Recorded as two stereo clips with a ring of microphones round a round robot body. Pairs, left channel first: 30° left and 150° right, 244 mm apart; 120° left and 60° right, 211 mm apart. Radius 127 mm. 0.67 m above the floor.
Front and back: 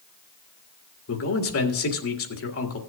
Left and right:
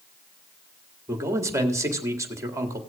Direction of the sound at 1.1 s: 15° left.